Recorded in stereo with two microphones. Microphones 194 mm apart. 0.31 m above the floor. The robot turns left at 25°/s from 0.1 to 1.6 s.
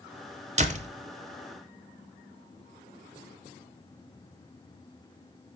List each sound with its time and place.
0.6 s a door slam: 35° right (ahead or behind), 0.7 m